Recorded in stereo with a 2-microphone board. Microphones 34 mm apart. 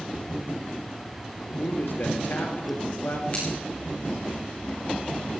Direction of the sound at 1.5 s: 70° left (ahead or behind).